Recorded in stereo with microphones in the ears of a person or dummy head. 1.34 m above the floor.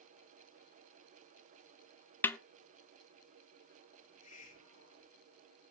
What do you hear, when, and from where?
2.2 s a snare drum: 10° left (ahead or behind), 0.5 m
4.0 s a hiss: 40° left (ahead or behind), 2.5 m